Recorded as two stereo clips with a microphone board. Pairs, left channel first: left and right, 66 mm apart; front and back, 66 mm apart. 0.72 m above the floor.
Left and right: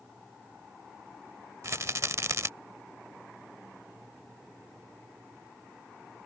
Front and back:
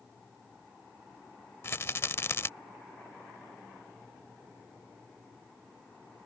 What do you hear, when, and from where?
1.6 s a rattle: 50° right